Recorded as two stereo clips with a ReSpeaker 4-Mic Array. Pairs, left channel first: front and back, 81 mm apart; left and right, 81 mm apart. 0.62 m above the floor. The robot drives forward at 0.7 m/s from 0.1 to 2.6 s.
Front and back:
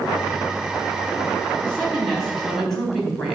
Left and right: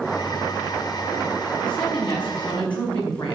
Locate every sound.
1.6 s a woman speaking: 80° left, 4 m; by 3.4 s 90° left, 4 m